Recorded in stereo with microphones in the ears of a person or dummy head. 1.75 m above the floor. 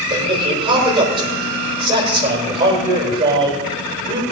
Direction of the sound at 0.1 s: 25° right (ahead or behind).